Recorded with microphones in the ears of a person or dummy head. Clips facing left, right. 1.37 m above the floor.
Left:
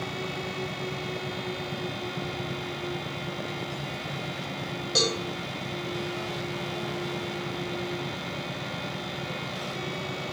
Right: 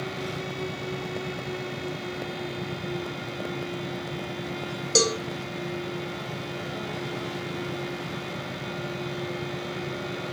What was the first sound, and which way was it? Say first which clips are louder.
A cowbell: right 5 dB; 40° right (ahead or behind).